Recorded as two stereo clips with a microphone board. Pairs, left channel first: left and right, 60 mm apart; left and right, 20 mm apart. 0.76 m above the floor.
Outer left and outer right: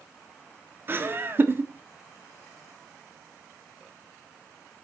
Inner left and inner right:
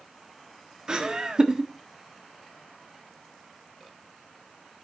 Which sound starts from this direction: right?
Laughter, at 0.9 s.